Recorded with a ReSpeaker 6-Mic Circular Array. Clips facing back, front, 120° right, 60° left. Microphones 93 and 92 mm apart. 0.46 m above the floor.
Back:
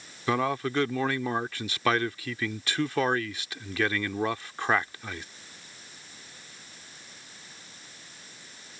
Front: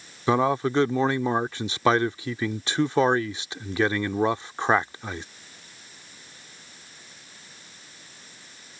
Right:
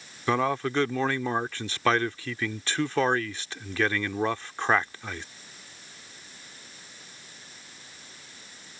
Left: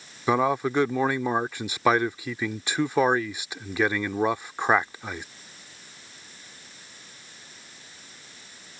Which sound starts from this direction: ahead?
A man speaking, at 0.3 s.